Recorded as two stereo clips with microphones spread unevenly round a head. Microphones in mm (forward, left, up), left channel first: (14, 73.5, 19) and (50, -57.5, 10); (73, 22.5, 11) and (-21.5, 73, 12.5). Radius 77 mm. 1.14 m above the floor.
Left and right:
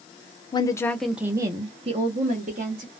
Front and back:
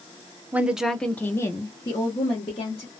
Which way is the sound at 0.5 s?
90° left.